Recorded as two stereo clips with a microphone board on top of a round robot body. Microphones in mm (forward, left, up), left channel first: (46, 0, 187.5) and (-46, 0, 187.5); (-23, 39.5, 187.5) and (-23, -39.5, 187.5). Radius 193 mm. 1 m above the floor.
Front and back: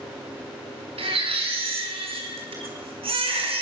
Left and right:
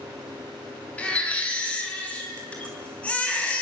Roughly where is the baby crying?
Behind.